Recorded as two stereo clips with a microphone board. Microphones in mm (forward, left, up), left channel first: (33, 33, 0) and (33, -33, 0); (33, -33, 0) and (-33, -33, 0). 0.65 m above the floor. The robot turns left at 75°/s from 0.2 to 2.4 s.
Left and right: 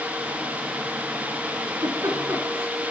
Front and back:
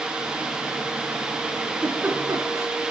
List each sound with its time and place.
1.7 s a giggle: 85° right, 3.5 m; by 2.7 s 140° right, 3.5 m